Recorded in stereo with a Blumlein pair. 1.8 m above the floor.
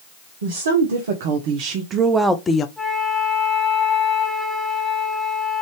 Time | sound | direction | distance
0.4 | a woman speaking | 65° right | 1.1 m
2.8 | a flute | straight ahead | 1.5 m